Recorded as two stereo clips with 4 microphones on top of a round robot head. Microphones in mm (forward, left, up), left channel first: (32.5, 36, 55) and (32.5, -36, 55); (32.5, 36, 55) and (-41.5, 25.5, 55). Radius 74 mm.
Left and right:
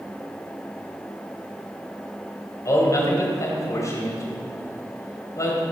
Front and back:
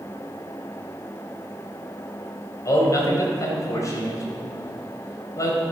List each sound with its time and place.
2.6 s a man speaking: 50° left, 3.5 m